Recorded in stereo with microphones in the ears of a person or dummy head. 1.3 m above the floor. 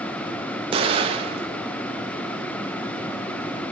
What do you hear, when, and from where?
0.7 s an explosion: 25° right (ahead or behind), 0.6 m